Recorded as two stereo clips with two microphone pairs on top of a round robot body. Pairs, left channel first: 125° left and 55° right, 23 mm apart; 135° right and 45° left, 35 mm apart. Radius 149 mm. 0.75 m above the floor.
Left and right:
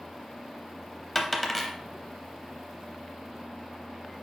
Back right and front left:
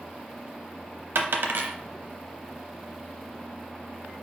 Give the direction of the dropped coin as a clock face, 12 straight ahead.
11 o'clock.